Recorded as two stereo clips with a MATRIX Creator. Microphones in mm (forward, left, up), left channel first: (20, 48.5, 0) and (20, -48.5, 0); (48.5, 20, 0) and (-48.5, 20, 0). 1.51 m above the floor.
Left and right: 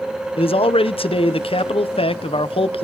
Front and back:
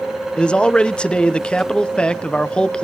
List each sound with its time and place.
0.4 s a man speaking: 80° left, 0.6 m